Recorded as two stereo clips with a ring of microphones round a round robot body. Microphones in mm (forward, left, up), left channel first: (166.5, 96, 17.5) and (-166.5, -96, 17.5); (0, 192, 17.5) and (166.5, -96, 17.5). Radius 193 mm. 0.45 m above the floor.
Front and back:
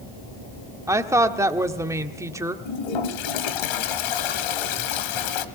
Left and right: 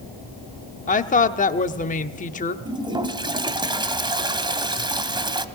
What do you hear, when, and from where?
0.9 s a woman speaking: 140° left, 1.0 m
2.6 s a toilet flushing: 15° left, 1.6 m